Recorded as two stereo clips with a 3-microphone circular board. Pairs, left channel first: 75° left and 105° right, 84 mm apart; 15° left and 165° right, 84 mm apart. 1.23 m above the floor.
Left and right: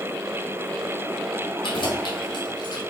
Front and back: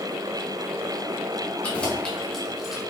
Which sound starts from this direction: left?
Keys jangling, at 1.6 s.